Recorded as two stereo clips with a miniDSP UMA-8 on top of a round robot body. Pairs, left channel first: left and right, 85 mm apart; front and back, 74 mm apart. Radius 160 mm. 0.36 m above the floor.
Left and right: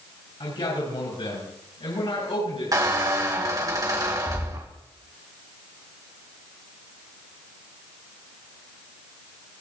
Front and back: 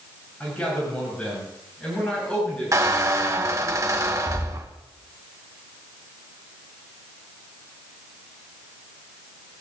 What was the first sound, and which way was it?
A man speaking, 70° left.